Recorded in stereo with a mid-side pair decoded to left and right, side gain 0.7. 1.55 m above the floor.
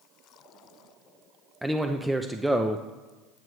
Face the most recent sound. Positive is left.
turn(degrees=-5)